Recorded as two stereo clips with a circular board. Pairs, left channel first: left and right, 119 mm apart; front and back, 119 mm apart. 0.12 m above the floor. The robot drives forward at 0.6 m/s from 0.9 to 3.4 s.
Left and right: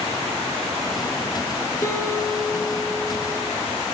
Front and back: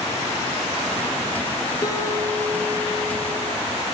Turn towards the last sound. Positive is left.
turn(degrees=130)